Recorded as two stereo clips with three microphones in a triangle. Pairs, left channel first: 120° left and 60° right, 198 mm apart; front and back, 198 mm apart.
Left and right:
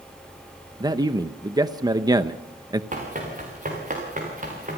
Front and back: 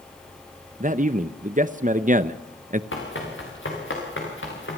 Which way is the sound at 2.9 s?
10° right.